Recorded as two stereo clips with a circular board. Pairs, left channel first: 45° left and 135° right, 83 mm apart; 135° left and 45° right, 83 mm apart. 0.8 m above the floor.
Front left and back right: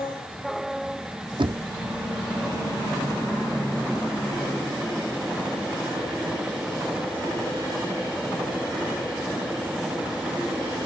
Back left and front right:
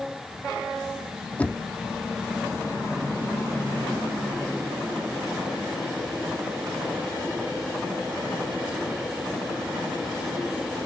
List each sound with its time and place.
1.4 s knocking: 155° right